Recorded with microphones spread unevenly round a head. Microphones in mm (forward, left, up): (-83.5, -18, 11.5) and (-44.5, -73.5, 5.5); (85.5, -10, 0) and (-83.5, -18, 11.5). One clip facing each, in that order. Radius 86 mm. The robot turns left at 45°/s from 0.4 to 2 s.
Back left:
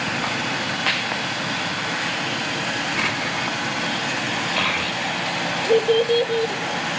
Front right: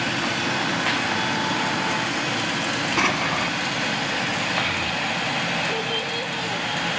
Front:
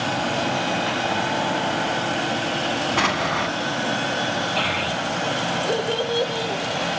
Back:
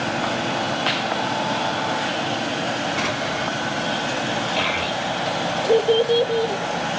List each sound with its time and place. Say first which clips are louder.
3.0 s an explosion: front right 2 dB, front 1 dB; 15° right, 1.6 m
4.6 s a child speaking: back left 1 dB, back 1 dB; 110° left, 1.8 m